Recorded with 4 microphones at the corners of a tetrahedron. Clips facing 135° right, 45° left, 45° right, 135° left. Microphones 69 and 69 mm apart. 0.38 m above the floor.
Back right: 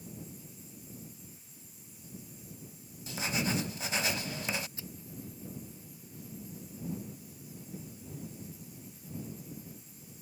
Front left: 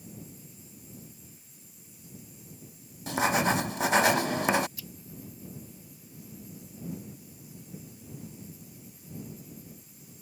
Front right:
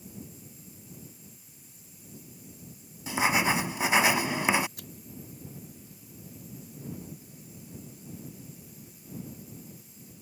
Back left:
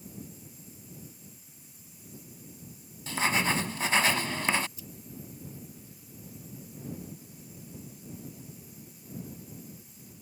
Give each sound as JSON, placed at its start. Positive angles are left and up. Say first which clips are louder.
{"t": 3.1, "sound": "writing", "louder": "front left 9 dB, front right 2 dB", "azimuth_deg": 30}
{"t": 4.8, "sound": "scissors", "louder": "even, front right 1 dB", "azimuth_deg": -70}